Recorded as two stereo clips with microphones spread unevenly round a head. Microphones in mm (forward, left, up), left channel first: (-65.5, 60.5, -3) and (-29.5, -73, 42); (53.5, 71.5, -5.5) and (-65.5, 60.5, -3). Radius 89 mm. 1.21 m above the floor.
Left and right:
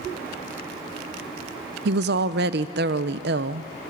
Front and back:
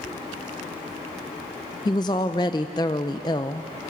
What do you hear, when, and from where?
1.9 s a woman speaking: 60° right, 0.5 m